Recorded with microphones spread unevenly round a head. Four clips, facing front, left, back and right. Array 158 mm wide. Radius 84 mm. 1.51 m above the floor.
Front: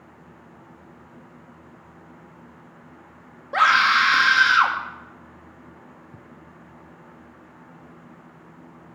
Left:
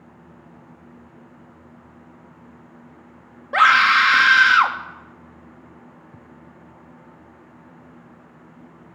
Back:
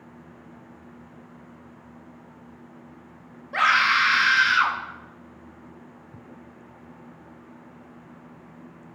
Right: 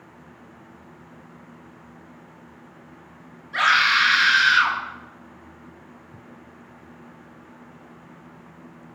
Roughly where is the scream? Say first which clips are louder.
Left 5 dB, front 3 dB; ahead left.